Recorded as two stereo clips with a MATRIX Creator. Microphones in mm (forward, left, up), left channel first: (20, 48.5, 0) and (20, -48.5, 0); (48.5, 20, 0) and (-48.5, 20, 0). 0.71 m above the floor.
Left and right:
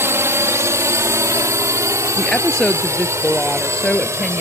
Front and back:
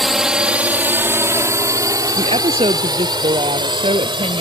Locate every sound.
0.0 s a drone: 90° right; by 4.4 s 150° right
2.2 s a woman speaking: 175° left